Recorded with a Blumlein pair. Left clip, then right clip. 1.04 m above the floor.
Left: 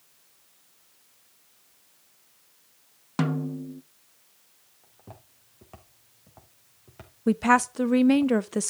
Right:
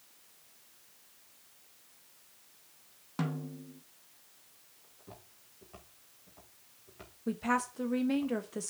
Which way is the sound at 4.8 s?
60° left.